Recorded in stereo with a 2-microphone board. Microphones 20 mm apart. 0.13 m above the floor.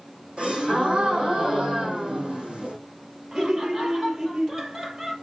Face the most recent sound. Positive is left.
turn(degrees=-45)  # may be behind; listen again after turning